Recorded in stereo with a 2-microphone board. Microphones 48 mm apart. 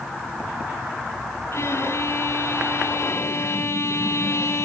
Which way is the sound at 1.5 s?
60° left (ahead or behind).